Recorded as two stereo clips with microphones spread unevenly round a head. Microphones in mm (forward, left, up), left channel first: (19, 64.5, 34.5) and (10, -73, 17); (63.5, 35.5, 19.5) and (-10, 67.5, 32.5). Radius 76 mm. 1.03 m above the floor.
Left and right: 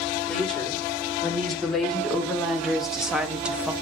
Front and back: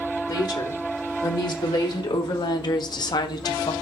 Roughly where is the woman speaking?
Ahead.